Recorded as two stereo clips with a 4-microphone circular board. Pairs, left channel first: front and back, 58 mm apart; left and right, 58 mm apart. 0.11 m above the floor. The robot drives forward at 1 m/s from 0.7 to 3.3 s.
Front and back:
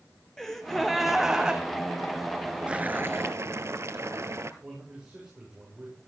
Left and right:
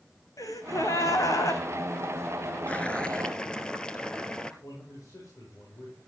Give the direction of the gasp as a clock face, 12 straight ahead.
9 o'clock.